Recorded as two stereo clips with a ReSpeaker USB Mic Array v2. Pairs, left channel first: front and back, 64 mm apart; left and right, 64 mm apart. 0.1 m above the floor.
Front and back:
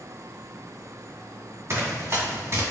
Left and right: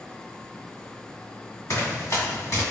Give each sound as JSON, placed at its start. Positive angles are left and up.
{"t": 1.7, "sound": "running footsteps", "azimuth_deg": 135, "distance_m": 2.0}